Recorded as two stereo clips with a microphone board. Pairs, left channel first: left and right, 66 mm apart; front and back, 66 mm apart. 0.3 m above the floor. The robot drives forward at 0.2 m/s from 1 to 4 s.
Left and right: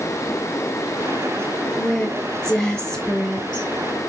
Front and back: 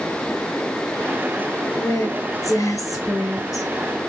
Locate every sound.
1.8 s a woman speaking: 15° left, 3 m